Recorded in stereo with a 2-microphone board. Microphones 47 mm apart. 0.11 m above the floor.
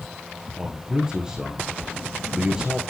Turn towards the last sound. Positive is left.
turn(degrees=-15)  # may be behind; listen again after turning